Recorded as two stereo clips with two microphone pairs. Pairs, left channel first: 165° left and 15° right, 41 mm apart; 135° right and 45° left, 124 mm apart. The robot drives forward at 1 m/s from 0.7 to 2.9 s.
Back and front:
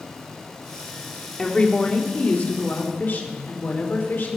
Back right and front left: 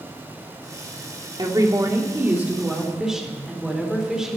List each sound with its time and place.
1.4 s a woman speaking: 95° left, 2 m; by 4.4 s 130° left, 2.5 m